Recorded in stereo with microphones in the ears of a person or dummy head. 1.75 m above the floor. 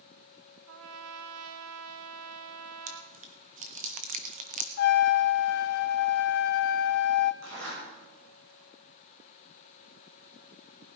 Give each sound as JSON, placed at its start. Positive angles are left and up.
{"t": 0.7, "sound": "a trumpet", "side_deg": -75, "distance_m": 1.0}
{"t": 2.9, "sound": "chewing", "side_deg": -40, "distance_m": 1.2}
{"t": 4.8, "sound": "a trumpet", "side_deg": 50, "distance_m": 0.5}
{"t": 7.4, "sound": "a zipper", "side_deg": -65, "distance_m": 6.5}